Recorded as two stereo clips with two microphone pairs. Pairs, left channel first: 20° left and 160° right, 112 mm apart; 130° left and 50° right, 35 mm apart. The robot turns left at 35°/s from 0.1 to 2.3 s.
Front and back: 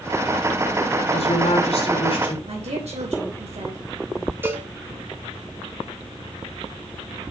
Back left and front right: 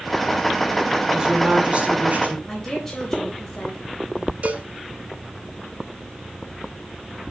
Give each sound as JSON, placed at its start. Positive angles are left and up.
{"t": 1.1, "sound": "a woman speaking", "azimuth_deg": 25, "distance_m": 3.0}
{"t": 2.5, "sound": "a woman speaking", "azimuth_deg": -150, "distance_m": 3.5}
{"t": 4.4, "sound": "a cowbell", "azimuth_deg": -90, "distance_m": 1.7}